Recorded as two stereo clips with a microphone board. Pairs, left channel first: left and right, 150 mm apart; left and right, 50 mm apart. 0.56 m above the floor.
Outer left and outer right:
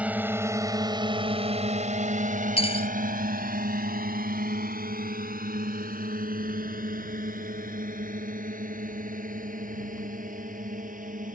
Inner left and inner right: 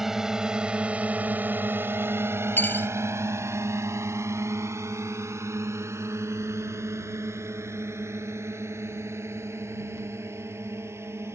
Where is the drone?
10° right (ahead or behind); by 11.4 s 65° right (ahead or behind).